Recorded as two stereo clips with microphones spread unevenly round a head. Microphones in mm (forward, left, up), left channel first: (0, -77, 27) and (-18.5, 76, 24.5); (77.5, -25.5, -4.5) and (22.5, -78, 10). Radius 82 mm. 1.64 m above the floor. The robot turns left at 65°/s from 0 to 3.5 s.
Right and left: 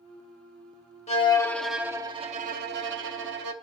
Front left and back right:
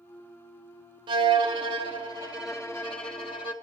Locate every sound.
1.1 s a violin: 135° right, 1.0 m; by 3.5 s 70° left, 1.0 m